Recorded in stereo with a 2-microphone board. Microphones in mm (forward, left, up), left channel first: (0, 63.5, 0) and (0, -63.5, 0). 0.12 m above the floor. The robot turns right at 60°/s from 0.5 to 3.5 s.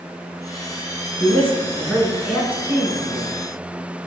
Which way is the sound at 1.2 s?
15° left (ahead or behind).